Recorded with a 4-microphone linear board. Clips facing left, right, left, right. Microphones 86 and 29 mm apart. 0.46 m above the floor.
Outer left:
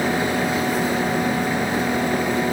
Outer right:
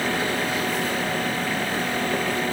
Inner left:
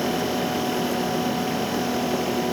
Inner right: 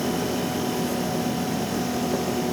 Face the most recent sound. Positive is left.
No sound to turn to.